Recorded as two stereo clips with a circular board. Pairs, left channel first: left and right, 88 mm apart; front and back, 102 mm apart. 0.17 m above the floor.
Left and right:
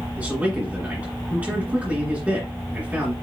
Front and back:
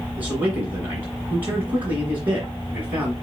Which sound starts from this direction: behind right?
A man speaking, at 0.2 s.